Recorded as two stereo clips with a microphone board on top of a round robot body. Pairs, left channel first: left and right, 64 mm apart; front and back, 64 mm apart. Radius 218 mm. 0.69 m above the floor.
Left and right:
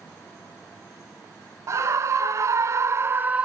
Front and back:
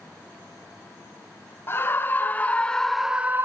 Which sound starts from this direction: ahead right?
A scream, at 1.7 s.